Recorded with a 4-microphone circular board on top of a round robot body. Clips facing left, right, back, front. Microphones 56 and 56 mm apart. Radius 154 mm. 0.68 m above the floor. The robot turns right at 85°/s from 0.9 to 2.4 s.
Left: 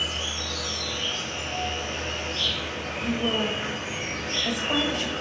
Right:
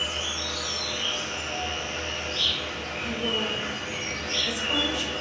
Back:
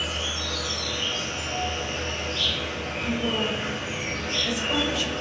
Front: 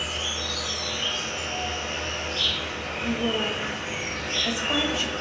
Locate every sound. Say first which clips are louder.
0.0 s an insect: even, back 1 dB; 60° right, 1.7 m; by 5.2 s 65° left, 1.7 m
3.0 s a woman speaking: left 3 dB, front 1 dB; 60° left, 1.3 m